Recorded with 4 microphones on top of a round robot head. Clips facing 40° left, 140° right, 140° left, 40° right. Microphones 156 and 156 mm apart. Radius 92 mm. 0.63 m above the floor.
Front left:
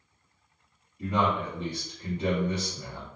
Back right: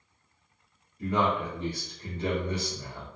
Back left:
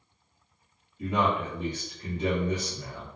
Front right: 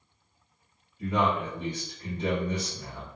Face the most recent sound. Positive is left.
turn(degrees=110)